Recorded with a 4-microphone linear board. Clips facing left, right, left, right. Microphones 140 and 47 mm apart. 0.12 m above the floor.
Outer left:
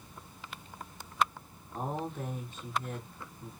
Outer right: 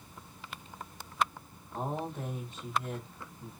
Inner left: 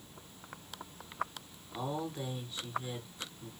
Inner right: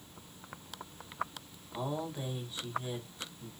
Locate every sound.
1.7 s a man speaking: 15° right (ahead or behind), 3.5 m